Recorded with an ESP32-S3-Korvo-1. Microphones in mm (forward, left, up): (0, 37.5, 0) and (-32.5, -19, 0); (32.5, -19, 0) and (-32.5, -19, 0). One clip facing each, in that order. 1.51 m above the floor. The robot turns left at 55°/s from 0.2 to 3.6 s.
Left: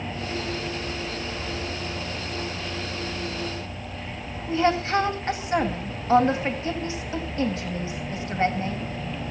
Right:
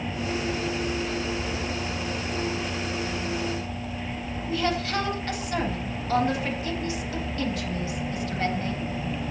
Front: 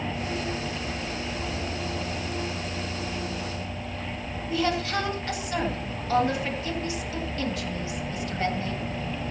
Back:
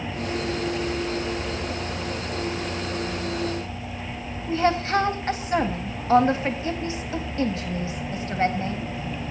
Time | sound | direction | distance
4.5 | a woman speaking | 120° left | 3 m